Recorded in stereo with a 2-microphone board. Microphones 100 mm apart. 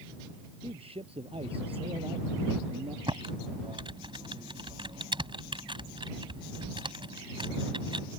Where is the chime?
No chime in this recording.